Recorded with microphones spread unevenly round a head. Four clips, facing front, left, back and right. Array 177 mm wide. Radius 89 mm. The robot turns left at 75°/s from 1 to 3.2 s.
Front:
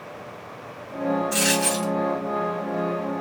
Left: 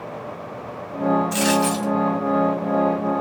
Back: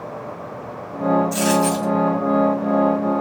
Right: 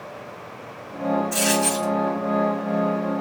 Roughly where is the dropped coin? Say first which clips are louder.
Left 3 dB, back 6 dB; ahead left.